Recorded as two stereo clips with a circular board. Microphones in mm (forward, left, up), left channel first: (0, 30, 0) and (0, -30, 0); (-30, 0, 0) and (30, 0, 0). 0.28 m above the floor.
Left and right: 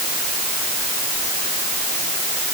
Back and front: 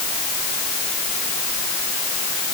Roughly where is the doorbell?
No doorbell in this recording.